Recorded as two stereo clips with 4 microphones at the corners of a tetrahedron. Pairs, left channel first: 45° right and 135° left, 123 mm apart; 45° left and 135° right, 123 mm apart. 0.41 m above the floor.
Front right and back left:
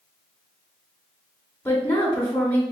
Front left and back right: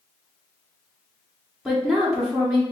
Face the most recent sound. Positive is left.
turn(degrees=-55)